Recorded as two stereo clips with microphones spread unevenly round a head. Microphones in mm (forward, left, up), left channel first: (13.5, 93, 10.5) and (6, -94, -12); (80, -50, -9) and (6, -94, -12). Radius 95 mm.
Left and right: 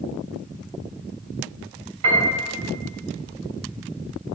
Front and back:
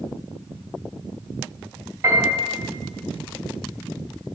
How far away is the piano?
About 2.5 m.